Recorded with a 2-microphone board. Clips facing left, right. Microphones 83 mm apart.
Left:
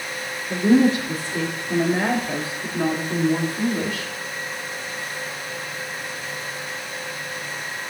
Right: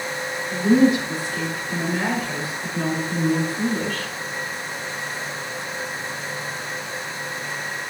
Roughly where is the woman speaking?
Left.